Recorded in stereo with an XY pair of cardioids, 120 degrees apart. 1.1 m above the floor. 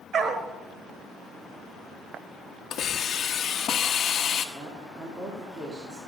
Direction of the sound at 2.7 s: 50° left.